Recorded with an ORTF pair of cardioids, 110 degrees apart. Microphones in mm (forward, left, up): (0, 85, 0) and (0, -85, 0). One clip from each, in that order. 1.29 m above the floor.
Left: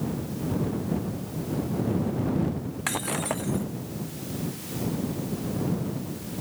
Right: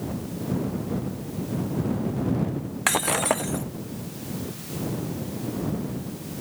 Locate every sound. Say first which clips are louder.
2.9 s breaking glass: right 7 dB; 40° right